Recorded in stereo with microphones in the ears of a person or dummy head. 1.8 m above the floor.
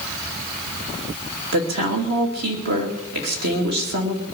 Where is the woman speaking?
55° right (ahead or behind), 2.5 m.